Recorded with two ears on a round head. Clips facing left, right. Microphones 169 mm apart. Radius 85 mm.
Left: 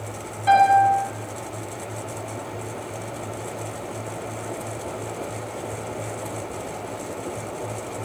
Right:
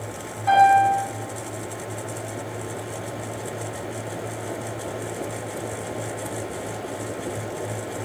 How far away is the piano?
About 1.0 m.